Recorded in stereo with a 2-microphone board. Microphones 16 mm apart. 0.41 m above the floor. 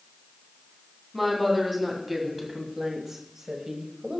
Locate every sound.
1.1 s a woman speaking: 15° right (ahead or behind), 4 m; by 4.2 s 45° right (ahead or behind), 2.5 m